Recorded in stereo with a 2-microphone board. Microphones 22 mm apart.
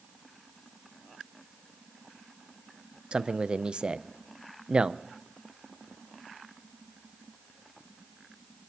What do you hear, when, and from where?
3.1 s a man speaking: 45° right (ahead or behind), 0.5 m